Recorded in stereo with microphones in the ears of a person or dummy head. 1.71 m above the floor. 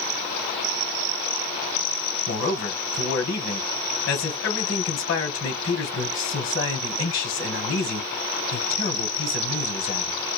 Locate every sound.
2.3 s a man speaking: 70° left (ahead or behind), 1.4 m